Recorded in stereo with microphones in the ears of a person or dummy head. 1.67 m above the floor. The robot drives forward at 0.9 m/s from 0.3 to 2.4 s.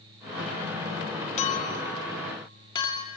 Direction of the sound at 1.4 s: 35° left (ahead or behind).